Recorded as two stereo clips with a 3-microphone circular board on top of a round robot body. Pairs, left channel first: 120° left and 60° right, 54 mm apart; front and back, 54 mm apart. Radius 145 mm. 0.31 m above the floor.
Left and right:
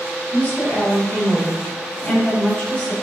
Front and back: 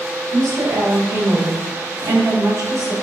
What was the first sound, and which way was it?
A woman speaking, 175° left.